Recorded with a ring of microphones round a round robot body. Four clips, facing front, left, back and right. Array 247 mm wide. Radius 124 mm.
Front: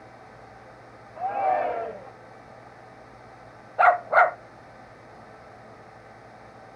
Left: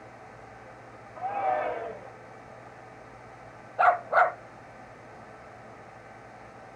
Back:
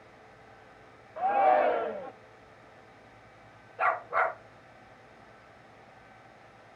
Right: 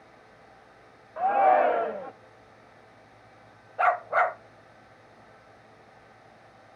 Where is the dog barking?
5° left, 0.9 m.